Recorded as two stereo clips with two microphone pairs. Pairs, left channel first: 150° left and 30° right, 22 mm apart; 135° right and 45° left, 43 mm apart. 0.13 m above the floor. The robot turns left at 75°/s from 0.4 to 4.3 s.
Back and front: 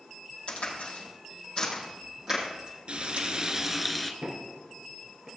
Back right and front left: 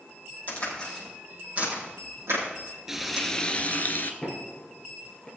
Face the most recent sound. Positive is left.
turn(degrees=-75)